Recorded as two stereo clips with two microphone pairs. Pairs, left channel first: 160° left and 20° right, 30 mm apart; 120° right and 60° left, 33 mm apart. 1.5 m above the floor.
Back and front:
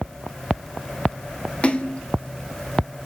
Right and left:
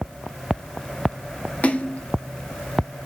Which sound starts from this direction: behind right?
A splash, at 1.6 s.